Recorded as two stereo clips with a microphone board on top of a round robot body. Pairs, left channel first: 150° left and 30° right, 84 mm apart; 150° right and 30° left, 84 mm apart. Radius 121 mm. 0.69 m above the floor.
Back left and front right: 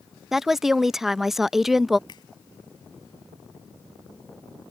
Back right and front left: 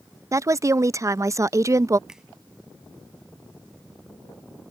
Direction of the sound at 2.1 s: 115° left.